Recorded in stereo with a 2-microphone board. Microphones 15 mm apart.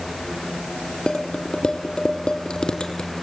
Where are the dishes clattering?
80° left, 4 m.